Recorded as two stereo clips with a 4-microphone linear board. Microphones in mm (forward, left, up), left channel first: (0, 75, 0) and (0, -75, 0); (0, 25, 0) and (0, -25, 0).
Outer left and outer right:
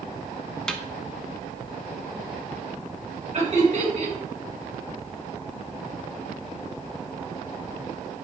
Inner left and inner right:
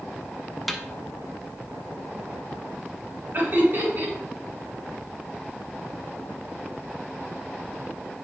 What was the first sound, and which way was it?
A snare drum, 5° left (ahead or behind).